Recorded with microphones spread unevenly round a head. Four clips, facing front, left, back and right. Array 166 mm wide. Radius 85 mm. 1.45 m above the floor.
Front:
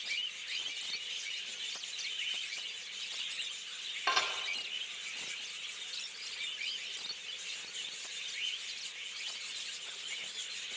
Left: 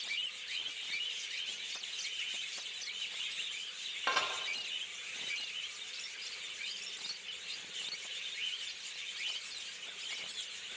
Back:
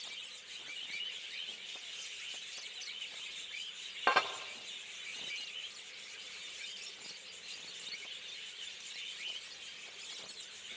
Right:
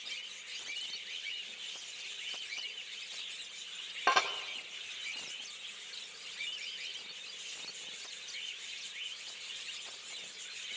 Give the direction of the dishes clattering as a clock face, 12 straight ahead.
5 o'clock.